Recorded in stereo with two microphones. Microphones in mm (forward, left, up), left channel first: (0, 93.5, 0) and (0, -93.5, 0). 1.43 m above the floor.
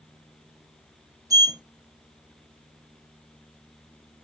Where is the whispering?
I don't hear whispering.